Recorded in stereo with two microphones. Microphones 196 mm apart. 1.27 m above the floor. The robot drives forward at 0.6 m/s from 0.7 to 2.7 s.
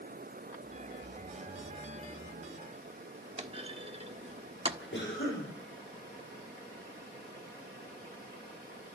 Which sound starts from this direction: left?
A cough, at 4.9 s.